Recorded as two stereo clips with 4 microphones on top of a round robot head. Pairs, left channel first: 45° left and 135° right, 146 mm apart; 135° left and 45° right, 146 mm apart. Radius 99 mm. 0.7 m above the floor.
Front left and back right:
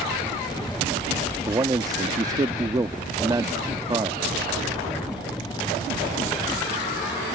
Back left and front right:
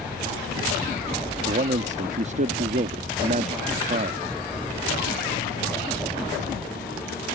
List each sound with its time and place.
1.5 s a man speaking: 75° right